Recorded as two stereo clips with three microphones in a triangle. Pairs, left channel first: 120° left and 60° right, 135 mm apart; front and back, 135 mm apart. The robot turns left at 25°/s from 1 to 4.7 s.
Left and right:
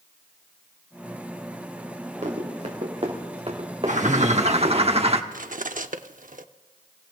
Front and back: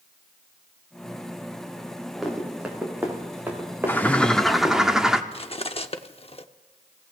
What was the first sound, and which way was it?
Running footsteps, 90° right.